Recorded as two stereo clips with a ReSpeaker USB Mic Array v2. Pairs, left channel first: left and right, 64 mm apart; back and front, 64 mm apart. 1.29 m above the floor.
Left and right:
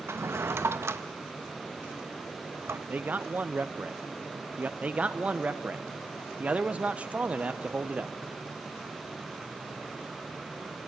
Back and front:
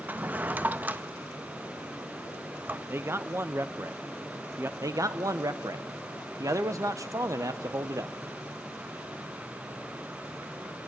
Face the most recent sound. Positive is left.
turn(degrees=-20)